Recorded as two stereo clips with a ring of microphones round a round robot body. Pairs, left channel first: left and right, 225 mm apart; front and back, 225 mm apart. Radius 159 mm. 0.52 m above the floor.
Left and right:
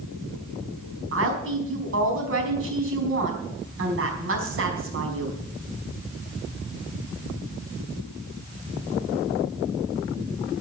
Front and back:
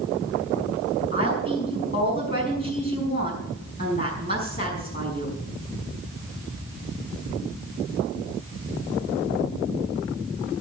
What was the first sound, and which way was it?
A woman speaking, 70° right.